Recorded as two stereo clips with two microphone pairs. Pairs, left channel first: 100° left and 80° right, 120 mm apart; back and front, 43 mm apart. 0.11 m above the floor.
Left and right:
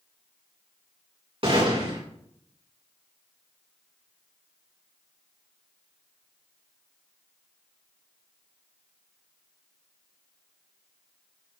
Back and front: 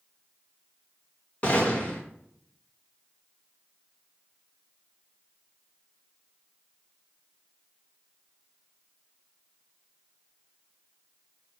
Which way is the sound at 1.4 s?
125° right.